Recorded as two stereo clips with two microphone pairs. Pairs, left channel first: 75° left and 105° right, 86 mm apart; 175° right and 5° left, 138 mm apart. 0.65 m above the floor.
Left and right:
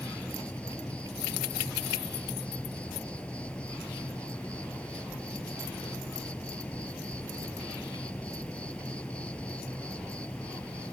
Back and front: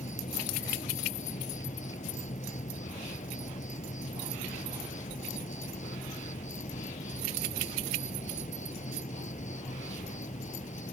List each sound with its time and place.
0.0 s an insect: 155° left